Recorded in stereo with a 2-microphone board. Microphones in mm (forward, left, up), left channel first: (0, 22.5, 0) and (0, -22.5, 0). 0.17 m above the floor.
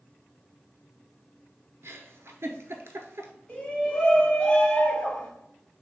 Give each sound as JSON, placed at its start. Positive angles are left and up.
{"t": 1.8, "sound": "a giggle", "side_deg": -70, "distance_m": 0.6}
{"t": 3.5, "sound": "a shout", "side_deg": 25, "distance_m": 1.2}